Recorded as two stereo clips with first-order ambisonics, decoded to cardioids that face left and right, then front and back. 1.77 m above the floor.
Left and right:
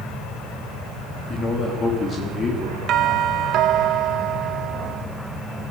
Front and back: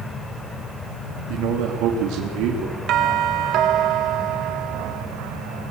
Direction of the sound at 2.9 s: 135° right.